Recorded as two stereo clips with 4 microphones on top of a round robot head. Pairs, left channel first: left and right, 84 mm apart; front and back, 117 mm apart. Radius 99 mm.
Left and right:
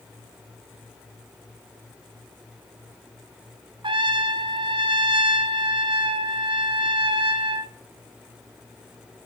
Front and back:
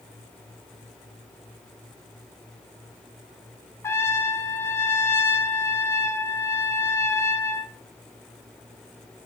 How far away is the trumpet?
About 1.9 m.